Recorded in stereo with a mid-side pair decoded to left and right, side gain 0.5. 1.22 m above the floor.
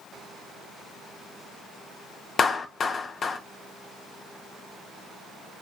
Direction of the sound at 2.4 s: 40° left.